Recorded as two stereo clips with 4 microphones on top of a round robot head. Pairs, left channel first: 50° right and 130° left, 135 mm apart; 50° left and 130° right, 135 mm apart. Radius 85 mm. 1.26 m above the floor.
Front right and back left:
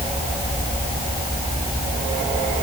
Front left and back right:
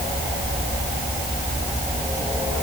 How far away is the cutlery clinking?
No cutlery clinking in this recording.